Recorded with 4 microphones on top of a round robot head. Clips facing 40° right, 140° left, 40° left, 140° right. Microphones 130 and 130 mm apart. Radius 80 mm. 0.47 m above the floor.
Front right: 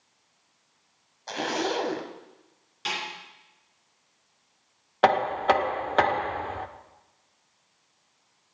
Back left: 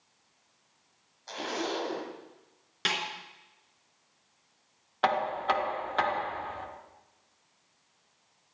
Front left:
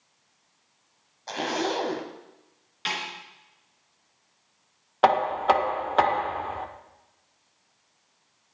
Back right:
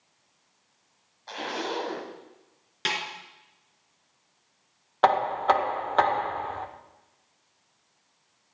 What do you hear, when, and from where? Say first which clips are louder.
1.3 s a zipper: front right 5 dB, front left 5 dB; 10° right, 1.6 m
2.9 s a snare drum: even, back right 1 dB; 175° left, 3 m
5.0 s knocking: front right 7 dB, front left 1 dB; 40° right, 0.9 m